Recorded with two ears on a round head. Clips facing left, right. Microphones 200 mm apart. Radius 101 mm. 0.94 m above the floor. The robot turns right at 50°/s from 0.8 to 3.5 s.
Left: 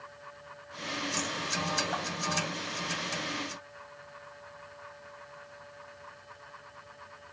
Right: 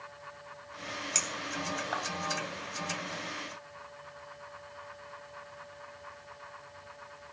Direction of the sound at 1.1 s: 80° right.